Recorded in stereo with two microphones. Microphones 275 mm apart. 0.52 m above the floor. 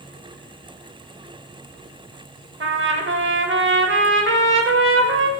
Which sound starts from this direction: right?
A trumpet, at 2.6 s.